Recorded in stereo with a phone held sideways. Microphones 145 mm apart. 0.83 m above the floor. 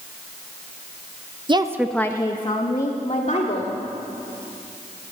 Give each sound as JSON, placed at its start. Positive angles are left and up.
{"t": 1.5, "sound": "a woman speaking", "side_deg": -35, "distance_m": 0.7}